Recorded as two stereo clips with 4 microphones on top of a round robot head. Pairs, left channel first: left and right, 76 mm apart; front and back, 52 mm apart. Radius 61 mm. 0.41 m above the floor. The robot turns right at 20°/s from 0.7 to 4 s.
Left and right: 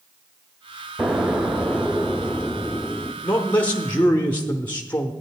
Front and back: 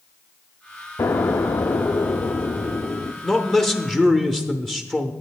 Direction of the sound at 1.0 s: 15° right.